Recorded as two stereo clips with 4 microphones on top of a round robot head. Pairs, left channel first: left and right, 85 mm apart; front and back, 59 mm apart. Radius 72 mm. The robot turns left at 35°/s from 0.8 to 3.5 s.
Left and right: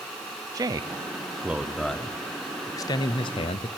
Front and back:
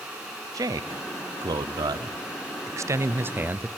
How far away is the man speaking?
About 0.7 m.